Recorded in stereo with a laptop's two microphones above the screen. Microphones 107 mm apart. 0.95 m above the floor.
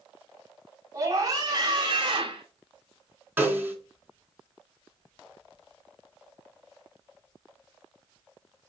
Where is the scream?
30° right (ahead or behind), 2.5 m; by 2.5 s 50° right (ahead or behind), 2.5 m.